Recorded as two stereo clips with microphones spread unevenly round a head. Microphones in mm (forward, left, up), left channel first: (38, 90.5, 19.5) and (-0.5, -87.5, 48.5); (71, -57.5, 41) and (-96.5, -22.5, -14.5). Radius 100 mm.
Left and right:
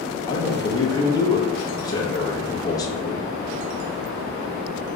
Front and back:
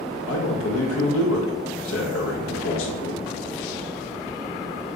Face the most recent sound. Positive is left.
turn(degrees=5)